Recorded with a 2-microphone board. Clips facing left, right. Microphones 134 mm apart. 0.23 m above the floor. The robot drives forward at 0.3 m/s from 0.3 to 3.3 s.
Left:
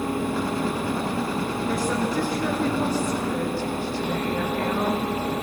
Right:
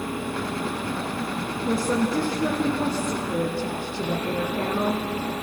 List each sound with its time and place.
1.6 s a woman speaking: 30° right (ahead or behind), 3 m; by 5.0 s 25° right (ahead or behind), 3 m